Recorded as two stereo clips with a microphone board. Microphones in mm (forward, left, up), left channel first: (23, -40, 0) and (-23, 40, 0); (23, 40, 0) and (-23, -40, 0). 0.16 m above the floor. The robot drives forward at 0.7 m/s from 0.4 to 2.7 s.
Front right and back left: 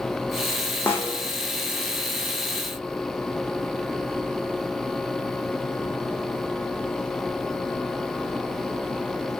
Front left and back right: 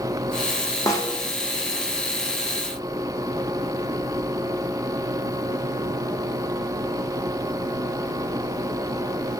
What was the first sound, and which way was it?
A snare drum, 5° left.